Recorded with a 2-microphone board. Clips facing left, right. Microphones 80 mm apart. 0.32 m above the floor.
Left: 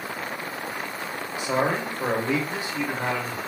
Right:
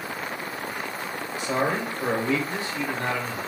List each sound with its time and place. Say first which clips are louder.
1.4 s a man speaking: left 1 dB; 15° left (ahead or behind), 0.9 m